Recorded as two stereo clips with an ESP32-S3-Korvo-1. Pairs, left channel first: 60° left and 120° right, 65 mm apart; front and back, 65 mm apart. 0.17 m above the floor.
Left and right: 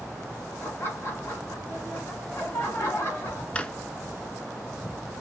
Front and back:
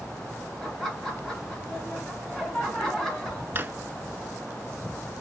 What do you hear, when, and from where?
0.6 s laughter: 80° left, 1.6 m
3.5 s a drawer: 130° left, 0.5 m